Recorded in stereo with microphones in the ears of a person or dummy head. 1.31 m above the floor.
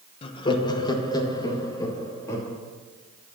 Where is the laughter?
35° left (ahead or behind), 1.1 m; by 2.5 s 20° left (ahead or behind), 3 m.